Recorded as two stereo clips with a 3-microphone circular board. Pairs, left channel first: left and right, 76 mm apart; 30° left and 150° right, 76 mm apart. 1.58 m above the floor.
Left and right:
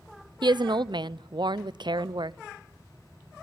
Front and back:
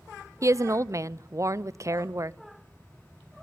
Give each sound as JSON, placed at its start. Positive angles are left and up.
{"t": 0.4, "sound": "a woman speaking", "azimuth_deg": -100, "distance_m": 0.6}